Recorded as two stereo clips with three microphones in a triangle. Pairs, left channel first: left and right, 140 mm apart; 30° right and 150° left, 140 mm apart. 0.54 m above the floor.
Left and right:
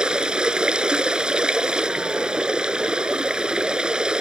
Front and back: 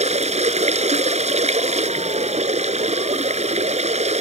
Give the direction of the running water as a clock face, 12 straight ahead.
6 o'clock.